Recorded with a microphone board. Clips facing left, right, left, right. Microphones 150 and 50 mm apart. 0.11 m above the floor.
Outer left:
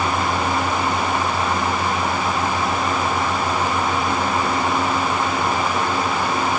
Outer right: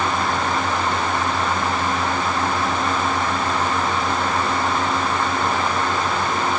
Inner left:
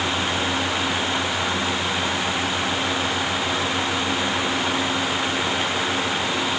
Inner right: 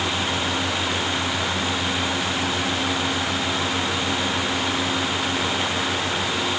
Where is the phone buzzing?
No phone buzzing in this recording.